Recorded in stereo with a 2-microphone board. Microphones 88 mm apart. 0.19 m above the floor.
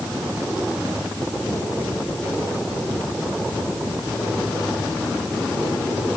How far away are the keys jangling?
No keys jangling in this recording.